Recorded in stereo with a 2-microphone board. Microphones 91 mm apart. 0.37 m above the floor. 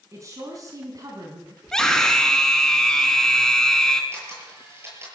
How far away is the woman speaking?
About 4 m.